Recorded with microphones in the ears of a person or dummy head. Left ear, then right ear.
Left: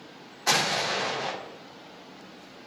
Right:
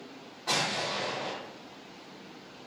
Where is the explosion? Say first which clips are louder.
Left 5 dB; 60° left (ahead or behind), 0.5 m.